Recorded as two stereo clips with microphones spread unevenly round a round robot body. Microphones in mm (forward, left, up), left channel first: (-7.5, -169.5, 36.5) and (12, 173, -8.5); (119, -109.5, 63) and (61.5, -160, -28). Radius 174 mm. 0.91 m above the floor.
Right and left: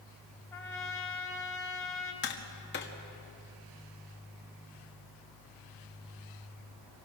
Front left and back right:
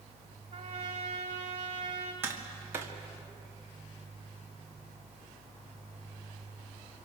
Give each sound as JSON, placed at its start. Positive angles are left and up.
{"t": 0.5, "sound": "a trumpet", "azimuth_deg": -175, "distance_m": 2.0}
{"t": 2.2, "sound": "tapping", "azimuth_deg": -155, "distance_m": 1.9}